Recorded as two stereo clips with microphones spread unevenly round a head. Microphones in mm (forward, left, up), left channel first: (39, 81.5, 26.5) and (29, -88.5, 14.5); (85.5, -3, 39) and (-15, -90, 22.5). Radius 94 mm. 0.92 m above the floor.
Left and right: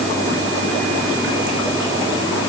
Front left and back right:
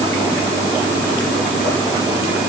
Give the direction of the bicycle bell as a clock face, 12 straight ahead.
No bicycle bell in this recording.